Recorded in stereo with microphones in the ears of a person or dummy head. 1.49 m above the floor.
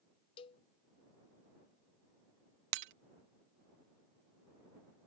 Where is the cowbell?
25° left (ahead or behind).